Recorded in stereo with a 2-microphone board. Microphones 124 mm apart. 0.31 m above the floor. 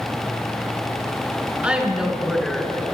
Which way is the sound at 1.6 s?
10° right (ahead or behind).